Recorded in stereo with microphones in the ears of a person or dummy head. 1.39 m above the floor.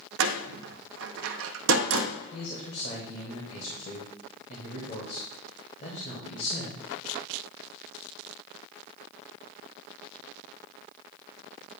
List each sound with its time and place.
0.2 s a door slam: 75° right (ahead or behind), 0.6 m
2.3 s a man speaking: 40° left (ahead or behind), 1.3 m